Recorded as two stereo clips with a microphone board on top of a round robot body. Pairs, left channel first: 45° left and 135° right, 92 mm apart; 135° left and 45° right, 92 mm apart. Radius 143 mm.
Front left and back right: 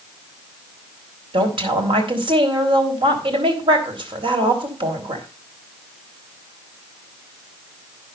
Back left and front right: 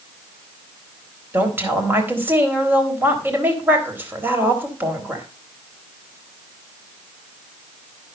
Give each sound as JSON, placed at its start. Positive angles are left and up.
{"t": 1.3, "sound": "a woman speaking", "azimuth_deg": -115, "distance_m": 4.0}